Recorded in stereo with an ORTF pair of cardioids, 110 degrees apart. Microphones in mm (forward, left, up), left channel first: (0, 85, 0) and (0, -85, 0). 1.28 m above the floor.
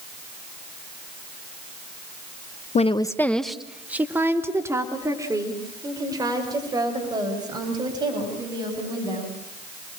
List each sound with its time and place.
2.8 s a woman speaking: 45° left, 0.9 m; by 9.3 s 25° right, 10.5 m